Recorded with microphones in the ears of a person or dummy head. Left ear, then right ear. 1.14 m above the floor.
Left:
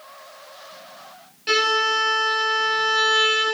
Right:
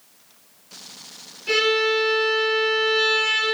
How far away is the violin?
About 0.8 m.